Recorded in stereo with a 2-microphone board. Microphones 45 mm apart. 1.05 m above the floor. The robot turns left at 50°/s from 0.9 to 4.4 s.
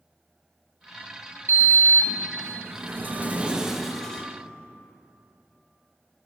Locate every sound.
1.5 s a sliding door: 60° right, 0.5 m; by 4.2 s 165° left, 0.5 m